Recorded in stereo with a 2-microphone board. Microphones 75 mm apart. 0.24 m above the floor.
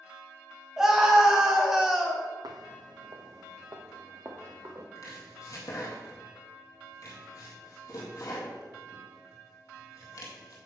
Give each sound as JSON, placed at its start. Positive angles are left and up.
{"t": 0.8, "sound": "a scream", "side_deg": -5, "distance_m": 1.4}
{"t": 2.4, "sound": "footsteps", "side_deg": -70, "distance_m": 0.5}
{"t": 5.0, "sound": "chopping", "side_deg": 55, "distance_m": 1.9}